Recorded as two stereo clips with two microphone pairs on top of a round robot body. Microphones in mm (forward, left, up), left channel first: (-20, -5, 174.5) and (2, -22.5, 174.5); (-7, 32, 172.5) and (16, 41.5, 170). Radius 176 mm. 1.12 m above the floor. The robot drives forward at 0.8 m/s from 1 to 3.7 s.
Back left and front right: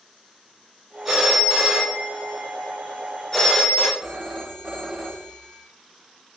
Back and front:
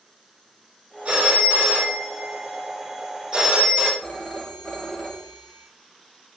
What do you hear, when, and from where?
1.1 s a phone ringing: 40° left, 3.5 m; by 3.9 s 80° left, 2 m
4.0 s a phone ringing: 90° right, 0.8 m